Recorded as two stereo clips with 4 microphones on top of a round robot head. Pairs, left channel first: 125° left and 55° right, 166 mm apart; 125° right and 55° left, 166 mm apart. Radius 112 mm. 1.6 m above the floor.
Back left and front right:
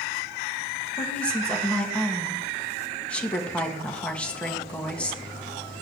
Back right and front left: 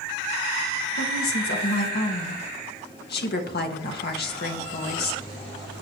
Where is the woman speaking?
155° right, 2 m.